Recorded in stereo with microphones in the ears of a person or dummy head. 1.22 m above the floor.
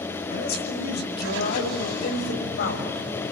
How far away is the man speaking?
About 5.5 m.